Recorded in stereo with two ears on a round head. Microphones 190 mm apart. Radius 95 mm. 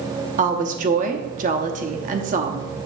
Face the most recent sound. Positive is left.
turn(degrees=-40)  # may be behind; listen again after turning